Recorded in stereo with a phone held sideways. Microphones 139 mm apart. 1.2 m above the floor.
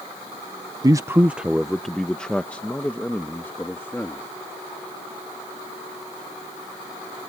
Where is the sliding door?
I don't hear a sliding door.